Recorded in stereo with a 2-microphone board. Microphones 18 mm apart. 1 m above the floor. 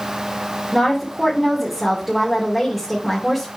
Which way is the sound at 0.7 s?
Centre (ahead or behind).